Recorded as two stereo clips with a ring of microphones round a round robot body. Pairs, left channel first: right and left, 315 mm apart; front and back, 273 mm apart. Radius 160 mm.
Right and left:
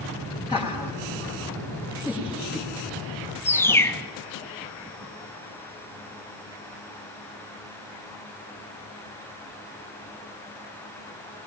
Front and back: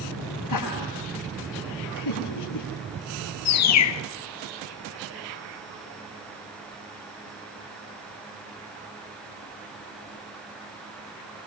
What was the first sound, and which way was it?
Laughter, 15° right.